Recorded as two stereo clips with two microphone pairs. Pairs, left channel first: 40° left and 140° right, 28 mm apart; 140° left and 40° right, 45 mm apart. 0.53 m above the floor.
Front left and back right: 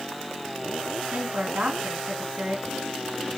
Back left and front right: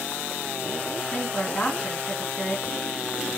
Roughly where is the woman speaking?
Behind.